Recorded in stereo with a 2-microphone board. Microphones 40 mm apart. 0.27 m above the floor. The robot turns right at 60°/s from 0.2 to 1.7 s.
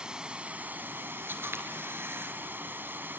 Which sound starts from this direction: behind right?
Running water, at 0.0 s.